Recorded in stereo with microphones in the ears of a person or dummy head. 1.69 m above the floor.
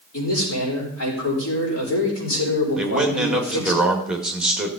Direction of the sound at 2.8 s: 5° right (ahead or behind).